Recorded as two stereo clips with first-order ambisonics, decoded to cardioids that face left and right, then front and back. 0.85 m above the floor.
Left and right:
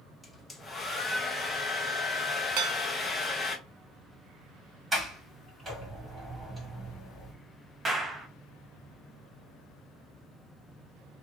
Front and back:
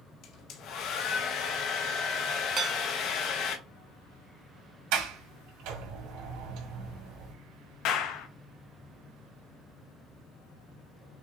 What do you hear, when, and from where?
0.2 s a hair dryer: 10° left, 0.7 m
2.6 s dishes clattering: 120° right, 0.6 m
4.9 s a sliding door: 170° right, 1.6 m
7.8 s a clap: 20° right, 0.6 m